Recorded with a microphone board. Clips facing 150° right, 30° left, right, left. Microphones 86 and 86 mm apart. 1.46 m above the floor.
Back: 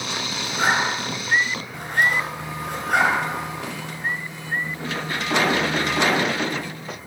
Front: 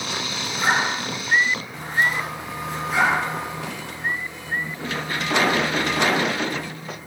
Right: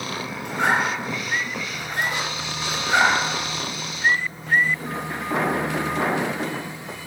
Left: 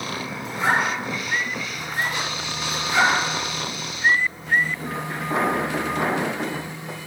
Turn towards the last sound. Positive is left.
turn(degrees=-120)